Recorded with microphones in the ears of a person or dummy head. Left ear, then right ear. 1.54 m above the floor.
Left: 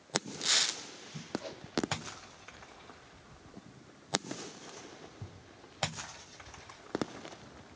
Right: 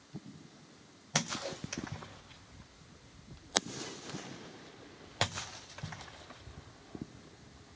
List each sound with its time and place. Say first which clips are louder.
1.4 s a whoosh: right 3 dB; centre (ahead or behind), 0.7 m